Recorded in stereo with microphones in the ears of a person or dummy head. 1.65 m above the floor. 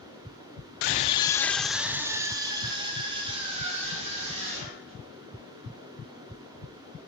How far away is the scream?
About 0.5 m.